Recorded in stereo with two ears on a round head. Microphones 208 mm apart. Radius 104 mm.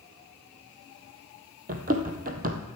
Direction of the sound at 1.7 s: 40° right (ahead or behind).